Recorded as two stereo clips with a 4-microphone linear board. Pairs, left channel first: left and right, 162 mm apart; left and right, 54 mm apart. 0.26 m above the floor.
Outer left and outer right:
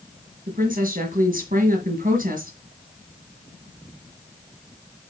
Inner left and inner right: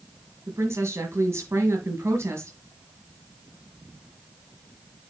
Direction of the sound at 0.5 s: 55° right (ahead or behind).